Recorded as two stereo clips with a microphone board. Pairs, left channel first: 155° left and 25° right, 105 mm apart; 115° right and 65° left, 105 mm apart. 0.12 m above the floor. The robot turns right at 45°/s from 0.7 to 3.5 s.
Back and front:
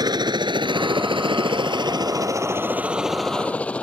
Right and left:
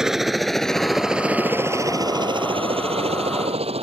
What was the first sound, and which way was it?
A helicopter, 15° right.